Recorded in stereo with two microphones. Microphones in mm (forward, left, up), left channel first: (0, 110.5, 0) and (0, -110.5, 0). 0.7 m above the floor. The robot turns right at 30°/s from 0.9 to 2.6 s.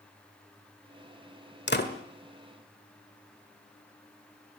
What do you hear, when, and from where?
1.7 s a door slam: 50° left (ahead or behind), 1.8 m; by 1.9 s 45° left (ahead or behind), 1.8 m